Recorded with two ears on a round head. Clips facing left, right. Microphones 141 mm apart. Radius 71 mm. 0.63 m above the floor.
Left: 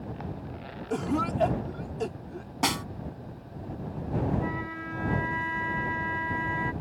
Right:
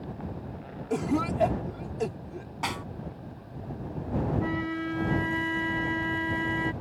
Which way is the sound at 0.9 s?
10° right (ahead or behind).